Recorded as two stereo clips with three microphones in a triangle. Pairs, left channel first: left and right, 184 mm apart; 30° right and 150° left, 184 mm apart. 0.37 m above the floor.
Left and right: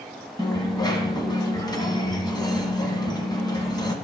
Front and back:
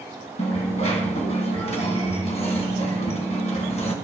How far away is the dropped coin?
About 1.4 m.